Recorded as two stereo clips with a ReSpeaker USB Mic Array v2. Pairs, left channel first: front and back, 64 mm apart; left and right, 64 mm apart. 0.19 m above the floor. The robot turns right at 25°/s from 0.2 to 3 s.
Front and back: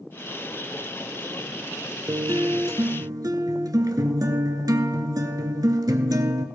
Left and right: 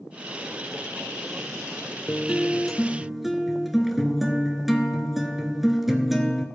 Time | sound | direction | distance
2.1 | a guitar | 160° left | 0.7 m